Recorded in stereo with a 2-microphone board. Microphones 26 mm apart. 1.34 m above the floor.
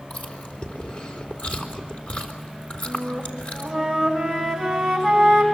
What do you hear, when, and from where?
0.1 s chewing: 65° left (ahead or behind), 3.5 m
2.9 s a flute: 5° left (ahead or behind), 6.5 m